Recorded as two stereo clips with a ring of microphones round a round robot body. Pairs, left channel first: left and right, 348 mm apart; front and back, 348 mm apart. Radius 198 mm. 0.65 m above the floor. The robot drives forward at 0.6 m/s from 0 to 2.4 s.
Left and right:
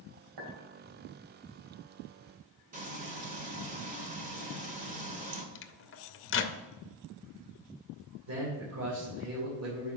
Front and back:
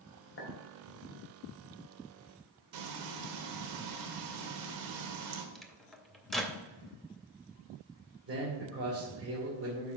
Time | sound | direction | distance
0.4 | a clink | 50° right | 2.5 m
2.7 | frying | 160° right | 1.4 m
5.5 | a microwave | 90° left | 0.6 m
8.3 | a man speaking | 130° right | 2.5 m